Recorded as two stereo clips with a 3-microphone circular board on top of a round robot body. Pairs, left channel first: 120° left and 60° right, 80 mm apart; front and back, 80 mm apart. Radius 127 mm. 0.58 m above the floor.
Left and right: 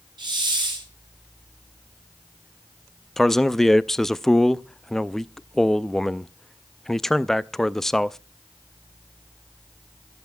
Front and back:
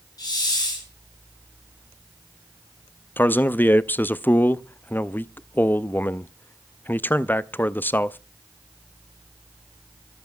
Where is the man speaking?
40° left, 0.6 m.